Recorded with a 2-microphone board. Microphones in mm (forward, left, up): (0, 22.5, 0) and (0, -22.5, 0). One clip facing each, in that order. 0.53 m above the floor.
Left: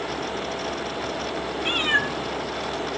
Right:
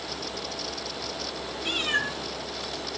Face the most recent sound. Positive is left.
turn(degrees=10)  # may be behind; listen again after turning